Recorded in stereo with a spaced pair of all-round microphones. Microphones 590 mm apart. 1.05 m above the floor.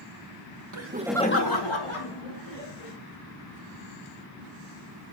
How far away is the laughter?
About 1.1 m.